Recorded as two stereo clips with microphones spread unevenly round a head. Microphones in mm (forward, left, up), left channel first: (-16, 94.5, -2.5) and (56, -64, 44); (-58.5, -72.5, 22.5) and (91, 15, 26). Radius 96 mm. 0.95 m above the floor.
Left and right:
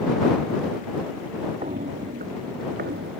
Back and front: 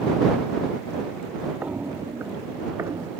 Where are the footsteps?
50° right; by 3.1 s 45° right.